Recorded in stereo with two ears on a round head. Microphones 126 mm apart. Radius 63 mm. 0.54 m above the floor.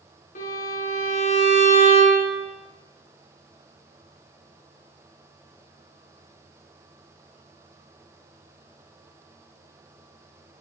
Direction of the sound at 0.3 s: 60° left (ahead or behind).